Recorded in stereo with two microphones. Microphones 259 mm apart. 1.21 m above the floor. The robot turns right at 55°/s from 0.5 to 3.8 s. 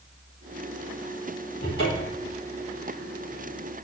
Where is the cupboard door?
40° left, 4.5 m; by 2.3 s 75° left, 4.5 m.